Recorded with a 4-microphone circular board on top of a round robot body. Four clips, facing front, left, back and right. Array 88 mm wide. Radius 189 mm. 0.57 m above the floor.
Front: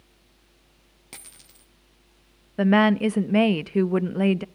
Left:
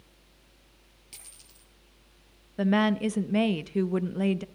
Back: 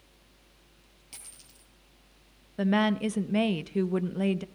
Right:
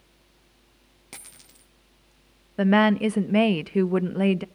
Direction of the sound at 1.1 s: 55° right.